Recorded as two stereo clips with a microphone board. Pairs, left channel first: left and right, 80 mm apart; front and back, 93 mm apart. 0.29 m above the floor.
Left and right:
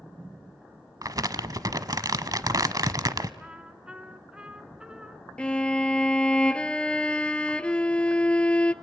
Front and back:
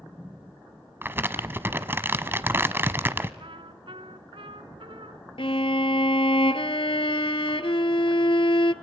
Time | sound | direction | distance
1.0 | crumpling | 115° right | 0.9 m
3.4 | a trumpet | 165° right | 1.2 m
5.4 | a violin | 15° left | 0.8 m